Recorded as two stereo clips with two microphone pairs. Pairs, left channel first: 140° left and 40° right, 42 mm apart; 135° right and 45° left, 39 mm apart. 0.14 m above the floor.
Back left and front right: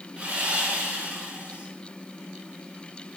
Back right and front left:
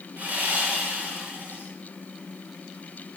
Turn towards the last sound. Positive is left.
turn(degrees=20)